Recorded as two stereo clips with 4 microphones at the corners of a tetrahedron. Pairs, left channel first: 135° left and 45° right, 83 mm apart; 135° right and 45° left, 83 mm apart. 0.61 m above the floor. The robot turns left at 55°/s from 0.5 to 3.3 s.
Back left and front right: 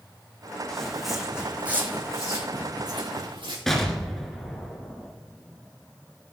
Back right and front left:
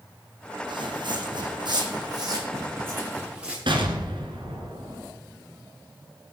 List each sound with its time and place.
0.7 s footsteps: 55° left, 1.6 m; by 3.6 s 35° right, 3 m
3.7 s an explosion: 50° left, 1.9 m